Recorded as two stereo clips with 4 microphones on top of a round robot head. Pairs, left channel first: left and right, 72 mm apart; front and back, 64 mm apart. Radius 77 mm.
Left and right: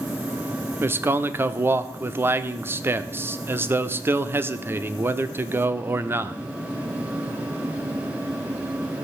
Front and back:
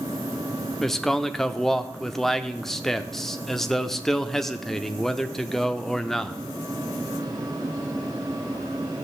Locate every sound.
0.8 s a man speaking: 80° right, 0.8 m